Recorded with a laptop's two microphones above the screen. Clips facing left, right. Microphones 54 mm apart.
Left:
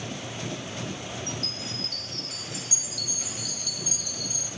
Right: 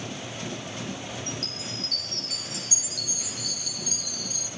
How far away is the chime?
About 4 m.